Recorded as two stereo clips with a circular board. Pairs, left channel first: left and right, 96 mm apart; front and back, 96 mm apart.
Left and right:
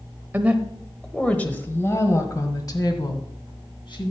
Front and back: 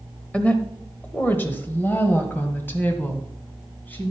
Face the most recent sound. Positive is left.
turn(degrees=70)